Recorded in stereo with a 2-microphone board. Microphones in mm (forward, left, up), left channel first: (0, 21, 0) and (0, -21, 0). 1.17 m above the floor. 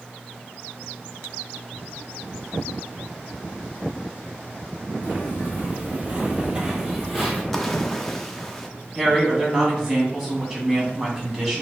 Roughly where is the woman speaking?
Centre.